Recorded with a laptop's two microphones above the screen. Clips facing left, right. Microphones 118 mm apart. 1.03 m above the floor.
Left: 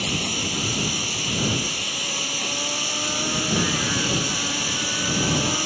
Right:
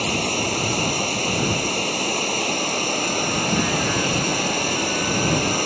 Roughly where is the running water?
Right.